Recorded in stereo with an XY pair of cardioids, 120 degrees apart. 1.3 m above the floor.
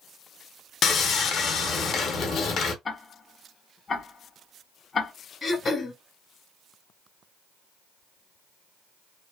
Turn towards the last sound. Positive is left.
turn(degrees=35)